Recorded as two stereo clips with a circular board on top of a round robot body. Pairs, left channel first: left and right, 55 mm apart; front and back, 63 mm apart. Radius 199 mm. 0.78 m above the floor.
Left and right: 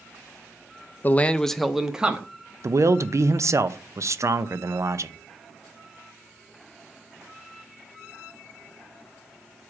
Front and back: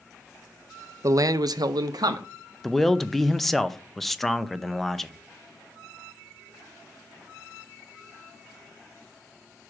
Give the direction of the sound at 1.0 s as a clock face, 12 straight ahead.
7 o'clock.